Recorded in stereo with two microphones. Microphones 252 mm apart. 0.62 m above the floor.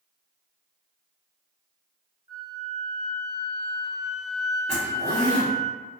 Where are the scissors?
I don't hear scissors.